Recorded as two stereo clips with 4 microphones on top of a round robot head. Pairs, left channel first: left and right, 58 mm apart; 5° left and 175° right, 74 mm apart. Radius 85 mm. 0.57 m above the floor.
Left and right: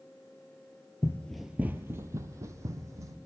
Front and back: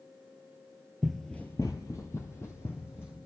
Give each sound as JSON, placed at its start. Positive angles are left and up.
{"t": 1.0, "sound": "running footsteps", "azimuth_deg": 100, "distance_m": 0.6}